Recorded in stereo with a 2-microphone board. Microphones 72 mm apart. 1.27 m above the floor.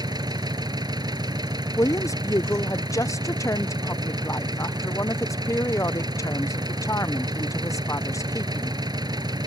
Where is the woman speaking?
45° left (ahead or behind).